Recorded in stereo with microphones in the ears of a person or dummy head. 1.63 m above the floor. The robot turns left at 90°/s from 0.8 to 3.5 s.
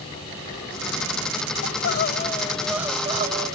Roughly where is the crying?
Left.